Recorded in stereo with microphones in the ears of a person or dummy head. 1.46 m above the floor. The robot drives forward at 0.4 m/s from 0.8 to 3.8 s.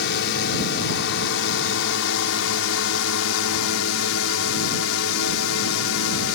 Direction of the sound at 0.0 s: 65° left (ahead or behind).